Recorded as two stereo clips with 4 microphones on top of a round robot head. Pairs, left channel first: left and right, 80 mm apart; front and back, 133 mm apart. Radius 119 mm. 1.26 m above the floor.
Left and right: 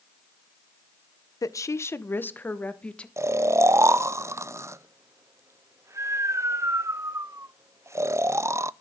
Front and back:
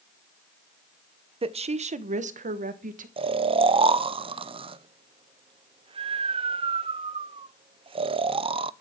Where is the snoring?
140° right, 0.6 m.